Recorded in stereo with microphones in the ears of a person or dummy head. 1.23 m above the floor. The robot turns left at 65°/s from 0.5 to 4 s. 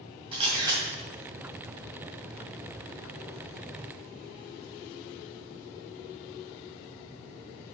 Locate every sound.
0.3 s a camera shutter: 25° right (ahead or behind), 2 m; by 0.8 s 5° right (ahead or behind), 2 m